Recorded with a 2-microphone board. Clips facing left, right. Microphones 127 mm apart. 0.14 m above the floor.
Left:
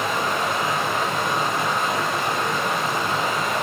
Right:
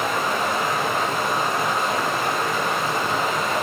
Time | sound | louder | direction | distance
0.0 | running water | even | centre (ahead or behind) | 5 m